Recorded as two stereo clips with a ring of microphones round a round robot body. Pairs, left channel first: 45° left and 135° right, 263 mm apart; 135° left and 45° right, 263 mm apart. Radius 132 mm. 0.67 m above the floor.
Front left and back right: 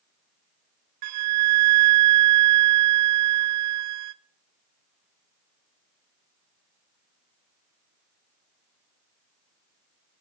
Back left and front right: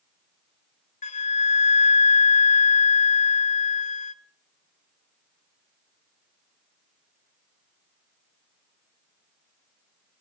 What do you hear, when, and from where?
1.0 s a flute: 160° right, 0.6 m